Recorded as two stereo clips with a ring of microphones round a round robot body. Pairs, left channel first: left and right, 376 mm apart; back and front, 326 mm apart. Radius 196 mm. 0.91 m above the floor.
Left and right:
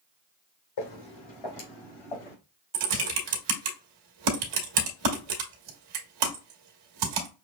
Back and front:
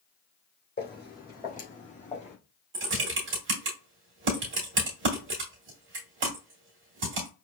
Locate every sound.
0.8 s footsteps: 120° left, 3 m; by 2.4 s 110° left, 3.5 m
2.7 s typing on a keyboard: 60° right, 1.2 m